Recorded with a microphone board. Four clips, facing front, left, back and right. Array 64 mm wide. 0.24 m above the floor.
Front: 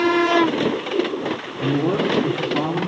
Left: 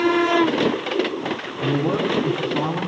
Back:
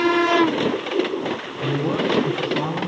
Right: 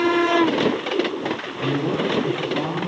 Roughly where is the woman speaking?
Ahead.